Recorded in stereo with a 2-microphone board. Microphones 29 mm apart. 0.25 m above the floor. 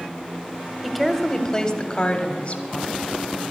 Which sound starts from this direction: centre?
A woman speaking, at 0.8 s.